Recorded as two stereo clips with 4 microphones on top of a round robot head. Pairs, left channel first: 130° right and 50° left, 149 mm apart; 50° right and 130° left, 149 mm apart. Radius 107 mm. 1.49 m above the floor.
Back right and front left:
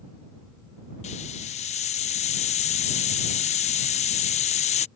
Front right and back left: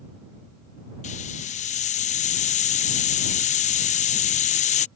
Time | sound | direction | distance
1.0 | a hiss | 85° right | ?